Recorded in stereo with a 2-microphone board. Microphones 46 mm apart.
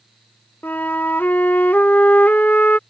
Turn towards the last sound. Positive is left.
turn(degrees=40)  # may be behind; listen again after turning